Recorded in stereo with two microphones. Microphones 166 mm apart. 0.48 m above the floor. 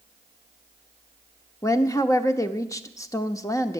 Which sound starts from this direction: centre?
A woman speaking, at 1.6 s.